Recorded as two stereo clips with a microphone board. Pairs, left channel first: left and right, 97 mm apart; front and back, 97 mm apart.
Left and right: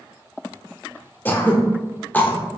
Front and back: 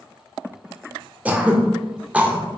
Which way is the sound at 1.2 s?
130° left.